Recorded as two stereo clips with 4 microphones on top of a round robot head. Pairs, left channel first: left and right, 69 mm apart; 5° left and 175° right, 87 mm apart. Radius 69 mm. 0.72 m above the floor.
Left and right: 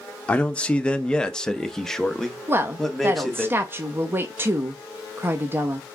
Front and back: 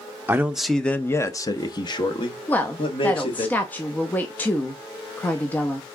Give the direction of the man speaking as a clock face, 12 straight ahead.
7 o'clock.